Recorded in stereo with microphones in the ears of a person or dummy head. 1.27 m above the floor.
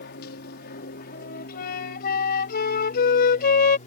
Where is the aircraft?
55° left (ahead or behind); by 3.9 s 40° left (ahead or behind).